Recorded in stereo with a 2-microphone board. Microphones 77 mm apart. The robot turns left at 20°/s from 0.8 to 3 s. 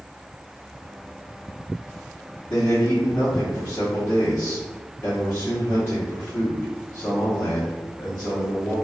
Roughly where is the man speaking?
Left.